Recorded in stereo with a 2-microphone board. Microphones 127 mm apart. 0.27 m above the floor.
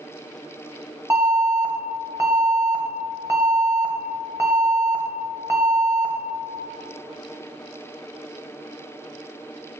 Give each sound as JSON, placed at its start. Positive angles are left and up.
{"t": 1.1, "sound": "an alarm", "side_deg": -20, "distance_m": 1.1}